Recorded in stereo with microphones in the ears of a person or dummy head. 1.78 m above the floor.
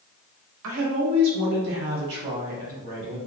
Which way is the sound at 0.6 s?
70° right (ahead or behind).